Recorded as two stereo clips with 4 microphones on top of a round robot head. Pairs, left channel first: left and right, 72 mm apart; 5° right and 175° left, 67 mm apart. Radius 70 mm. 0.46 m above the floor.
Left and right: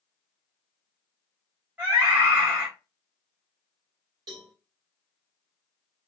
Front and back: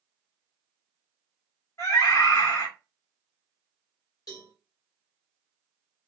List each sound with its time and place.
1.8 s a scream: 25° right, 1.5 m
4.3 s a cowbell: 50° right, 1.8 m